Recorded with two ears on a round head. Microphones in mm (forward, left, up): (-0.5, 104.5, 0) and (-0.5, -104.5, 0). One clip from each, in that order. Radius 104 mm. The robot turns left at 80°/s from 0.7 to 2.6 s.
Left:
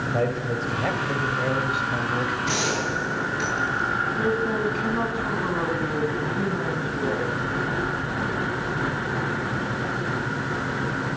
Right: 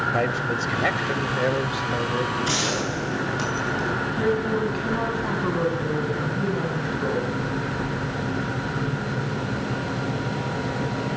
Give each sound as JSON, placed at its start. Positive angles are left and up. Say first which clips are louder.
{"t": 0.1, "sound": "a man speaking", "louder": "right 2 dB", "azimuth_deg": -70, "distance_m": 2.5}
{"t": 2.5, "sound": "a gunshot", "louder": "even", "side_deg": -80, "distance_m": 9.0}
{"t": 4.2, "sound": "a man speaking", "louder": "even", "side_deg": -15, "distance_m": 7.0}